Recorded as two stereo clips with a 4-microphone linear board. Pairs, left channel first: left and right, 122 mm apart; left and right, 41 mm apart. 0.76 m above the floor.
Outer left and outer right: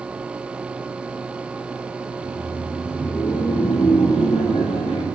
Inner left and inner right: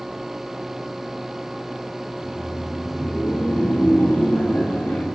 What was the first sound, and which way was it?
Laughter, 45° right (ahead or behind).